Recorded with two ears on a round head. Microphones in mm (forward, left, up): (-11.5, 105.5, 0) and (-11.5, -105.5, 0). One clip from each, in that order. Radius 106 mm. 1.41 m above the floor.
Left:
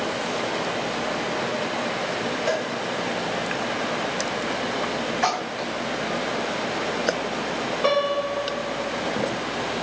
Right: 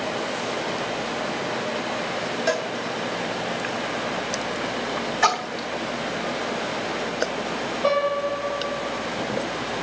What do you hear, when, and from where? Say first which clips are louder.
2.5 s a cowbell: right 2 dB; 25° right (ahead or behind), 1.8 m
5.2 s a splash: right 5 dB; 25° right (ahead or behind), 3 m
7.8 s a piano: even; 45° left (ahead or behind), 5.5 m